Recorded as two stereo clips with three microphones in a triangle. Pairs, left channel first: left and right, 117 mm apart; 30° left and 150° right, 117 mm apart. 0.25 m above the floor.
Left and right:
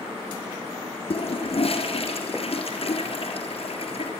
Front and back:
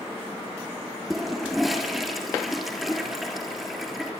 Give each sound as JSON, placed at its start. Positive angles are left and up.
{"t": 1.1, "sound": "a toilet flushing", "azimuth_deg": 120, "distance_m": 3.5}